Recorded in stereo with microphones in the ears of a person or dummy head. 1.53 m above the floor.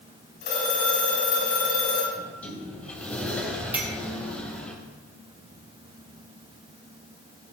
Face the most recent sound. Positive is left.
turn(degrees=-15)  # may be behind; listen again after turning